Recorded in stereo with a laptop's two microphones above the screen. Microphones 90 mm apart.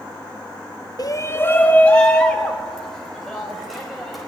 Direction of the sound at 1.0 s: 45° left (ahead or behind).